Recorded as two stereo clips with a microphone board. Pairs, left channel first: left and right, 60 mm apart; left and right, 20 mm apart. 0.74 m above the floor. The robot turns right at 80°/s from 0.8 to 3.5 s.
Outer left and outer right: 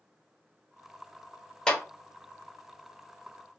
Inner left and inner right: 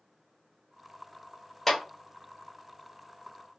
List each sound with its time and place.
1.7 s a clap: 15° left (ahead or behind), 1.0 m; by 1.8 s 25° left (ahead or behind), 1.0 m